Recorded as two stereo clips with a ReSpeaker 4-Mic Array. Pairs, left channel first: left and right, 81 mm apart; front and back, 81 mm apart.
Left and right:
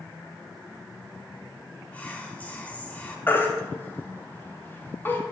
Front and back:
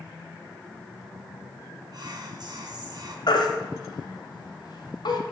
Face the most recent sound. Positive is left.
turn(degrees=25)